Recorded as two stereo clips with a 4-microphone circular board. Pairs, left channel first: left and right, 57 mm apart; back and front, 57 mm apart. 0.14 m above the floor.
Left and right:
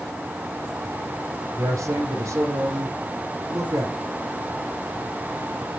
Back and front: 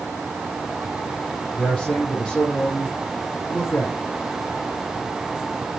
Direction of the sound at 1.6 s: 115° right.